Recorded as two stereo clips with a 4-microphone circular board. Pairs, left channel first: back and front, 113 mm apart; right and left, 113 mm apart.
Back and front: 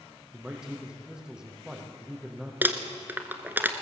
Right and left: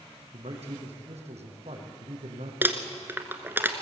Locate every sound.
0.3 s a man speaking: 85° left, 5 m
2.6 s crumpling: 50° left, 1.6 m